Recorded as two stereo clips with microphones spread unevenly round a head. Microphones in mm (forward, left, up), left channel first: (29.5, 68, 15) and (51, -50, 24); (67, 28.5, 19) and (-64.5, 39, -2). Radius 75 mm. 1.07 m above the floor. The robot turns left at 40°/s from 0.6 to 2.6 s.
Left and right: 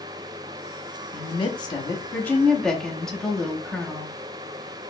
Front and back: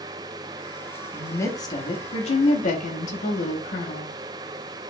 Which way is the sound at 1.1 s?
80° left.